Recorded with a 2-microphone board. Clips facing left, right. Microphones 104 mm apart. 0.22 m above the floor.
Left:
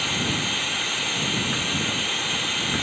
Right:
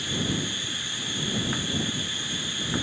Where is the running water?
70° left (ahead or behind).